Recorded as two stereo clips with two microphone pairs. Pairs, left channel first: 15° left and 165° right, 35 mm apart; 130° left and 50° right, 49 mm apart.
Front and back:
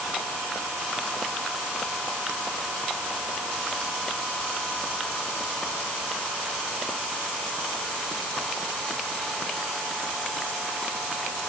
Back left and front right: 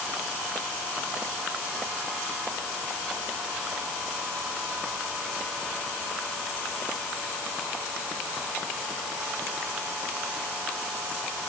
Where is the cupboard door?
No cupboard door in this recording.